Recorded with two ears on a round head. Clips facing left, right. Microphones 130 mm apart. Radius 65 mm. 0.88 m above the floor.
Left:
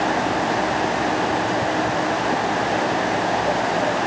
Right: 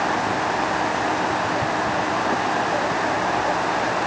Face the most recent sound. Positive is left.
No sound to turn to.